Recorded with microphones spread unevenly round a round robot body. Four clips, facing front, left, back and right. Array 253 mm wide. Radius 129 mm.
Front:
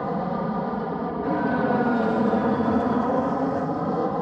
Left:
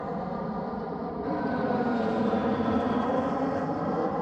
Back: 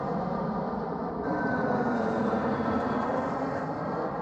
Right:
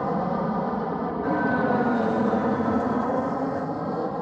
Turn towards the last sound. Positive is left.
turn(degrees=0)